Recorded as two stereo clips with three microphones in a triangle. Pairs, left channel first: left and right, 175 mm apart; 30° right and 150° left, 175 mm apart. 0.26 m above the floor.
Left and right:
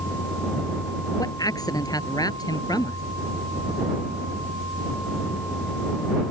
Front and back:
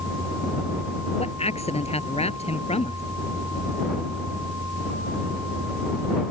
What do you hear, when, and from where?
1.2 s a man speaking: 20° left